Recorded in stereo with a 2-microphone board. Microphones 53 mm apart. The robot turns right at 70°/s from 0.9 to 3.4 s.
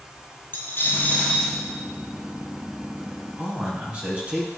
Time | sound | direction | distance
0.5 | a dropped coin | 135° left | 1.7 m
3.4 | a man speaking | 25° right (ahead or behind) | 2.5 m